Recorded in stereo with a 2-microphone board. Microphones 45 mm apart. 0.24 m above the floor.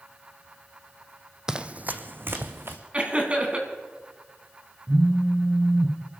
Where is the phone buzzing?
45° right (ahead or behind), 2.5 m.